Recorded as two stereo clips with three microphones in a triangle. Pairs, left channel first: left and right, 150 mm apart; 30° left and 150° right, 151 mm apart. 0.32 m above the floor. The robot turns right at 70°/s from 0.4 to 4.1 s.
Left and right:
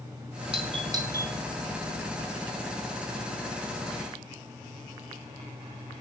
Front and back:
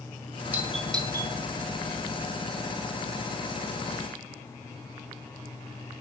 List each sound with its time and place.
0.5 s a doorbell: 80° right, 1.9 m; by 1.3 s 20° right, 1.9 m